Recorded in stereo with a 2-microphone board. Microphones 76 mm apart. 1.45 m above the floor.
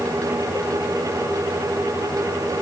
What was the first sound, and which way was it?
Only background noise.